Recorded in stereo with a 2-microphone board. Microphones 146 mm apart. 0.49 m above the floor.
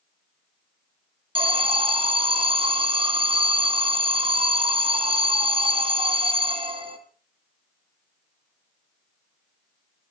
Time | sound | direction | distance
1.4 | an alarm | 35° right (ahead or behind) | 2.5 m